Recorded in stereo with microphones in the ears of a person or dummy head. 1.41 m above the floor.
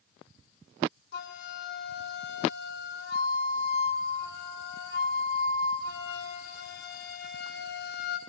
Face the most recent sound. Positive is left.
turn(degrees=50)  # may be behind; listen again after turning